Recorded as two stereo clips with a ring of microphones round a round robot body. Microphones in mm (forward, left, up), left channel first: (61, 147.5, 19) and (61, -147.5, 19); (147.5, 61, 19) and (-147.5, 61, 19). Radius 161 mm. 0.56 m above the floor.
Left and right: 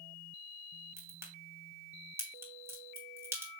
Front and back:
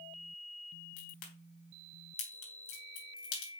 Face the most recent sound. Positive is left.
turn(degrees=-10)